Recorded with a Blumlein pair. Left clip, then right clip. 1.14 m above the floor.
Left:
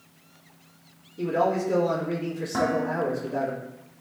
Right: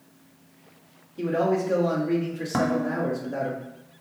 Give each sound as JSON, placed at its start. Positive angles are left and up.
{"t": 1.2, "sound": "a man speaking", "azimuth_deg": -20, "distance_m": 1.7}
{"t": 2.5, "sound": "dishes clattering", "azimuth_deg": -20, "distance_m": 0.6}